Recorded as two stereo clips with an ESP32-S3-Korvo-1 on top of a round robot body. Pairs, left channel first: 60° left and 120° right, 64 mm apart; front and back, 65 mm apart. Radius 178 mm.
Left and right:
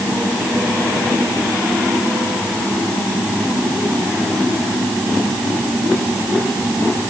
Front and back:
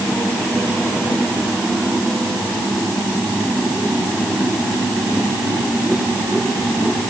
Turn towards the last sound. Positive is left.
No sound to turn to.